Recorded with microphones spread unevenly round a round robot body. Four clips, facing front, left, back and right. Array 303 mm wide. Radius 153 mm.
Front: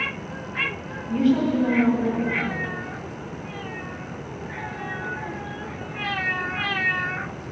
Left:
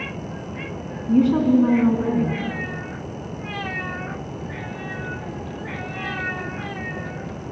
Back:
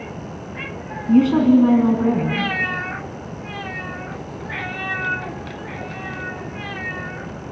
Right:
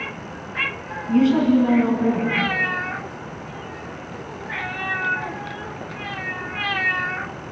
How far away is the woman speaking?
About 3.5 m.